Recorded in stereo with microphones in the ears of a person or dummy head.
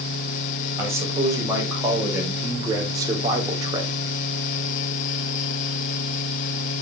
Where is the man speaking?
20° right (ahead or behind), 5.5 m; by 4.0 s 30° right (ahead or behind), 2 m.